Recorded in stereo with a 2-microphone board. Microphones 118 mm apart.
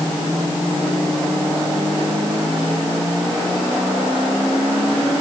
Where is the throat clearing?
No throat clearing in this recording.